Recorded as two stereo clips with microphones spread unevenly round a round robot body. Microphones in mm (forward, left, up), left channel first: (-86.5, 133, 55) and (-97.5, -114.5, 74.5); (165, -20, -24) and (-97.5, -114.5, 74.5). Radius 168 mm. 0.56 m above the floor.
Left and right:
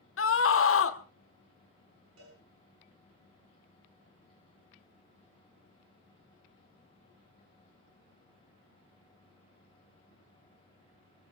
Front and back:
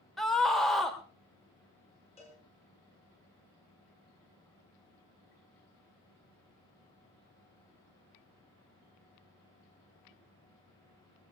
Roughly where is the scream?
Left.